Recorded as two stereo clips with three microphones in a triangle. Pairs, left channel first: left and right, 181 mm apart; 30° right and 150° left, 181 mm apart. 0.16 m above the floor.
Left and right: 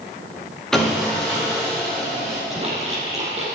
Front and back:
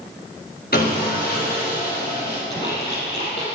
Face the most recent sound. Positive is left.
turn(degrees=-40)